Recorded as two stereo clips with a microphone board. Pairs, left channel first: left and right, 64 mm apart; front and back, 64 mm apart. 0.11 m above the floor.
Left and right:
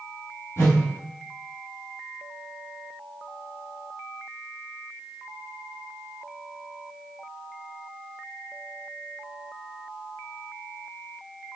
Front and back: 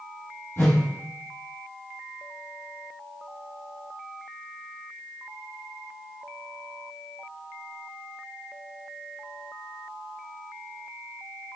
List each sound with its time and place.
0.6 s a whoosh: 50° left, 1.0 m